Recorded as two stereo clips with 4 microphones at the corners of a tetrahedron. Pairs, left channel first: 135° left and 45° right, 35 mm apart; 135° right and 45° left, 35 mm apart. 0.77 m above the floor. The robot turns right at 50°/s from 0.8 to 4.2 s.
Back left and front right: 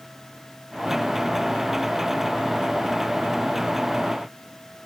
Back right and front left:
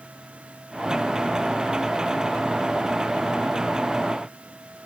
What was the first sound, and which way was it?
Only background noise.